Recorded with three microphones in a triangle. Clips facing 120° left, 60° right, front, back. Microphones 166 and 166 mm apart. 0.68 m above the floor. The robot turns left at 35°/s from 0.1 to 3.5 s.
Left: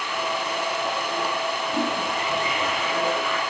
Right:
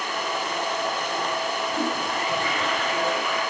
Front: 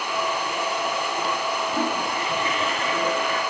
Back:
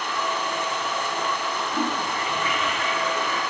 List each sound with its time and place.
1.7 s a toilet flushing: 80° left, 3 m; by 3.4 s 20° left, 3 m